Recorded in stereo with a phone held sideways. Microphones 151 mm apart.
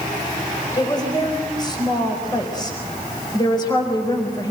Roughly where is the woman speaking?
Left.